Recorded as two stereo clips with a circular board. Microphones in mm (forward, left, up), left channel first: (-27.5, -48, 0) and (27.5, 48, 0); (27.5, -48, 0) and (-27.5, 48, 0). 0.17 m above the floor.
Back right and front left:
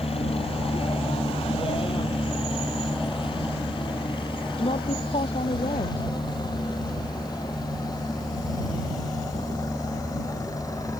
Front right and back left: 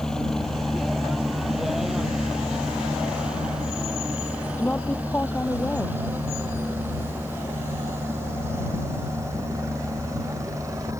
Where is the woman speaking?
135° right.